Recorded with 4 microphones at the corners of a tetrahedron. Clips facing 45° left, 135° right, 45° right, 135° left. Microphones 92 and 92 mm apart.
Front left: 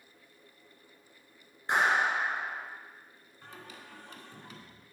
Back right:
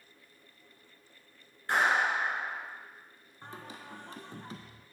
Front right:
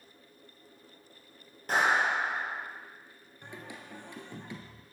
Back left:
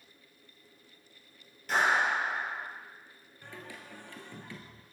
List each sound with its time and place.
1.7 s a clap: 20° right, 1.8 m
3.4 s singing: 105° right, 0.7 m